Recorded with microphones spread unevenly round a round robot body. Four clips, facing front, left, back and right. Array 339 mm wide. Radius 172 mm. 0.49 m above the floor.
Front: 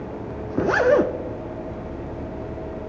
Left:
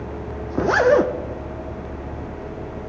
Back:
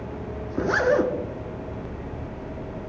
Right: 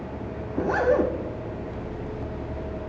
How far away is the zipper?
About 0.6 m.